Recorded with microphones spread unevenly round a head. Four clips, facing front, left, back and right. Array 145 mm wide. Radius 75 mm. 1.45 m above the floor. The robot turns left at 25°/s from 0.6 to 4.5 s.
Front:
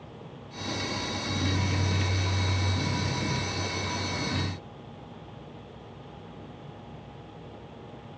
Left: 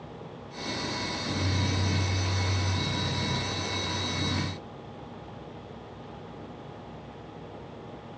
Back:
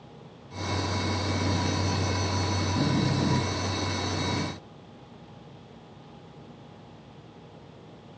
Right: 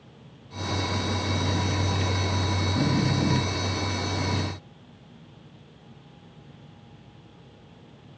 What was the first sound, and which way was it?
Only background noise.